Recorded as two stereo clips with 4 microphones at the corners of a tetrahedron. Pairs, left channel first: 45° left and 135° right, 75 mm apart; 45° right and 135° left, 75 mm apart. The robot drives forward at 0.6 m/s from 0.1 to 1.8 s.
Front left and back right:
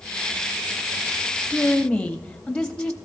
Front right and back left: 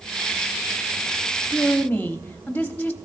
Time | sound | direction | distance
1.5 | a woman speaking | 10° right | 0.7 m